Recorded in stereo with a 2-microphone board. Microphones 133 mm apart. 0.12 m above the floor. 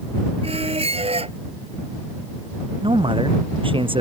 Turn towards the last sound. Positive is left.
turn(degrees=-40)  # may be behind; listen again after turning